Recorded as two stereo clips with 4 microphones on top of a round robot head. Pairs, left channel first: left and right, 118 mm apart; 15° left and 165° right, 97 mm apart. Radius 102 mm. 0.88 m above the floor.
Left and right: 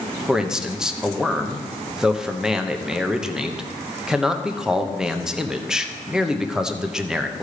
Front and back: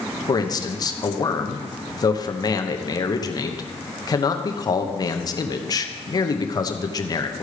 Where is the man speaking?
5° right, 1.1 m.